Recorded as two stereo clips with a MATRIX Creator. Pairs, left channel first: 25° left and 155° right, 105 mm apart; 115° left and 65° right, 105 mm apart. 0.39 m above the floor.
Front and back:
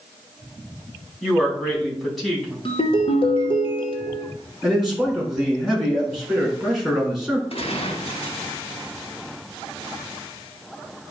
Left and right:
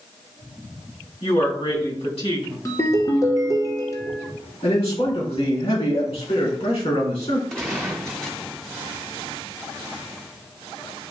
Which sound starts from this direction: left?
A woman speaking, at 1.2 s.